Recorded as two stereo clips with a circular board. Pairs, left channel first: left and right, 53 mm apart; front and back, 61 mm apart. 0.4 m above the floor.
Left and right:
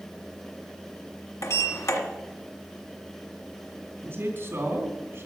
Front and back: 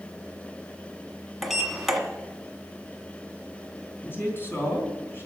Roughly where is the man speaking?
Ahead right.